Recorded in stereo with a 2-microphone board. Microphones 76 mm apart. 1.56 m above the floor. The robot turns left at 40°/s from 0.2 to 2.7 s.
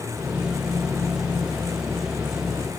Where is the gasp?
I don't hear a gasp.